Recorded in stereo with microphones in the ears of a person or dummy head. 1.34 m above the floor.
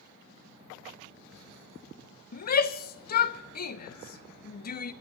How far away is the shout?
About 0.9 m.